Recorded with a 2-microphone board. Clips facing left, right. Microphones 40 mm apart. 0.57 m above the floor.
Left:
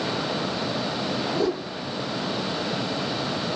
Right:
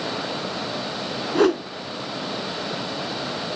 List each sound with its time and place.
1.4 s a whoosh: 75° right (ahead or behind), 1.2 m